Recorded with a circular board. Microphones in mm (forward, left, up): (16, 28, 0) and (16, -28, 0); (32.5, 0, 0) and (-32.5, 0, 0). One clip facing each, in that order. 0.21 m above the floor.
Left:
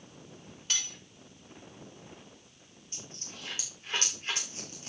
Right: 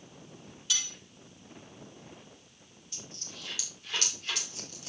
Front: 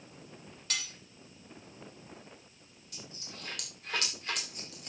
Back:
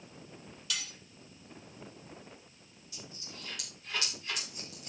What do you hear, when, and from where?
0.7 s cutlery clinking: 45° left, 3.5 m
2.9 s a dropped coin: 30° left, 6 m